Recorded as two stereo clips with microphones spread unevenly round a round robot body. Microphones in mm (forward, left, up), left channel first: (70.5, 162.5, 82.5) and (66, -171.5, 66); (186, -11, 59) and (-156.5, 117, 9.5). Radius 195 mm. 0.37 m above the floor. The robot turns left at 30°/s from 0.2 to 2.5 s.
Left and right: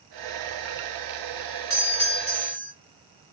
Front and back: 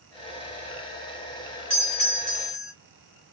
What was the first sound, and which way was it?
A doorbell, 50° left.